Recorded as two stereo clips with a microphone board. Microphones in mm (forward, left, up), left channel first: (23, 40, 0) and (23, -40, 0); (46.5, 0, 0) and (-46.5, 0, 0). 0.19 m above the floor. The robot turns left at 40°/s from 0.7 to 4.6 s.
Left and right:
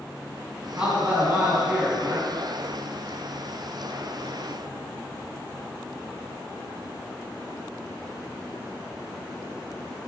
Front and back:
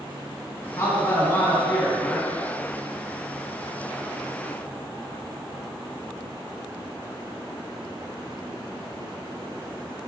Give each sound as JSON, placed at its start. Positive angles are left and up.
{"t": 0.8, "sound": "a man speaking", "azimuth_deg": -20, "distance_m": 1.5}